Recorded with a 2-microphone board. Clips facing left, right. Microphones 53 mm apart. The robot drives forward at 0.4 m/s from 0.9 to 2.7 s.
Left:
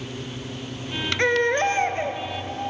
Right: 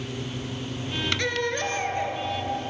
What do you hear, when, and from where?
1.2 s a baby crying: 35° left (ahead or behind), 0.6 m; by 2.2 s 30° left (ahead or behind), 0.7 m